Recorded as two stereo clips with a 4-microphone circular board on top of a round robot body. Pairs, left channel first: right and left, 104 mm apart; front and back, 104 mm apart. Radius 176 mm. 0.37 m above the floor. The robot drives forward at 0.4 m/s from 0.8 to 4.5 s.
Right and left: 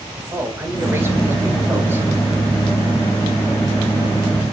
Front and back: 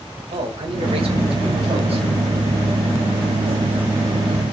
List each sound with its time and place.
0.3 s a man speaking: 155° left, 3.5 m; by 2.1 s 160° left, 4 m